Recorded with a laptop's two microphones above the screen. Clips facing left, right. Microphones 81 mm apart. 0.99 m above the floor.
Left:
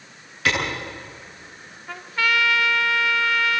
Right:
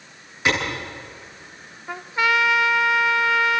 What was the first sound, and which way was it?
A clap, 20° right (ahead or behind).